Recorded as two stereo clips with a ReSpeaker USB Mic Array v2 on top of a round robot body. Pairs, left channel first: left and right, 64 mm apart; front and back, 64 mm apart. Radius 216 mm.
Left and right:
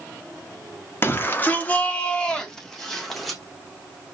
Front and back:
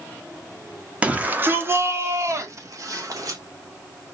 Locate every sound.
1.0 s a shout: 120° left, 1.4 m; by 3.4 s 175° left, 2.5 m